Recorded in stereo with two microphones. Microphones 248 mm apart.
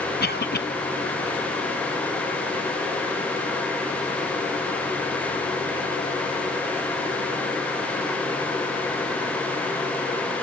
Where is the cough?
40° left (ahead or behind), 1.1 m.